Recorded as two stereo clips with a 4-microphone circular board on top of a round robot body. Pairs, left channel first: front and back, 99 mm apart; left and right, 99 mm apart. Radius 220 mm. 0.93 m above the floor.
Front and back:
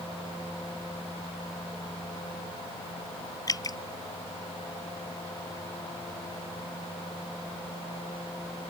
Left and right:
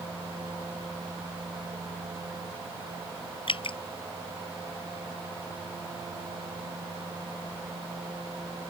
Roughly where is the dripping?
Ahead left.